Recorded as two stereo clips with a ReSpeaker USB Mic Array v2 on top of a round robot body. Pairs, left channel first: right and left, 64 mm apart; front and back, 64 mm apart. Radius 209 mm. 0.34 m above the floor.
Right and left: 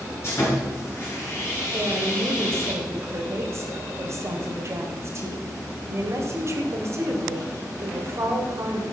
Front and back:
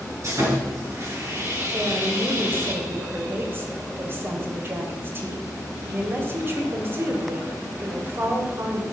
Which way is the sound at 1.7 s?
130° left.